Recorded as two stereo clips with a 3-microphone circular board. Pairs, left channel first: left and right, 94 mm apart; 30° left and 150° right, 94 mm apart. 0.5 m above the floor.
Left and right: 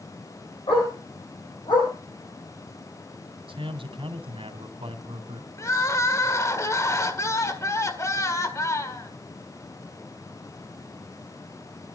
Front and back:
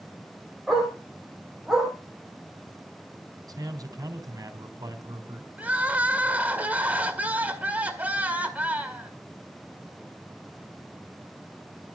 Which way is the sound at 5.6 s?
140° left.